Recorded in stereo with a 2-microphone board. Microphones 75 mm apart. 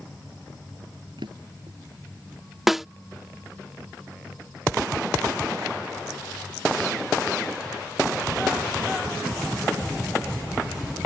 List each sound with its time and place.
1.2 s a drawer: 80° right
2.7 s a snare drum: 5° right (ahead or behind)